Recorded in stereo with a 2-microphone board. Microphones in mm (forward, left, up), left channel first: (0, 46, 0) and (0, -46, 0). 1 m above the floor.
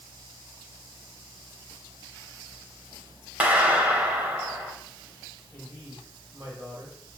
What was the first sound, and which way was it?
A clap, 15° right (ahead or behind).